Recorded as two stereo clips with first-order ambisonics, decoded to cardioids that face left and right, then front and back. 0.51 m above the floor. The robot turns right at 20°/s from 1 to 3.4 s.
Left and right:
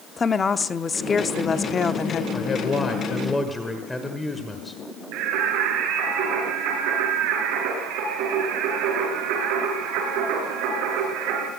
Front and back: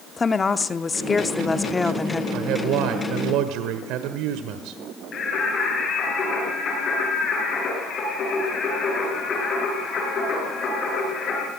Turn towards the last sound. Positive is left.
turn(degrees=-65)